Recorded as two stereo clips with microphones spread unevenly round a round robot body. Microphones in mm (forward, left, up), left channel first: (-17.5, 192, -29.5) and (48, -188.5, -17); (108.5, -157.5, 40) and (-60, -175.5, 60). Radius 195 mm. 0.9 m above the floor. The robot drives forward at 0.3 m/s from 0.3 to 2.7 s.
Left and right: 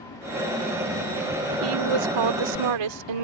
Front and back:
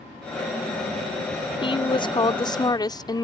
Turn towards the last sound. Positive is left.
turn(degrees=-60)